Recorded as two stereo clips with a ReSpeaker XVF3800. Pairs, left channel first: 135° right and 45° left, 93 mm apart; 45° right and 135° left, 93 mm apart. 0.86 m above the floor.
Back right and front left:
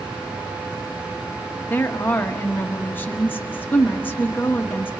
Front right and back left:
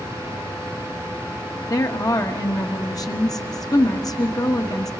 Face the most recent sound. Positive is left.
turn(degrees=-75)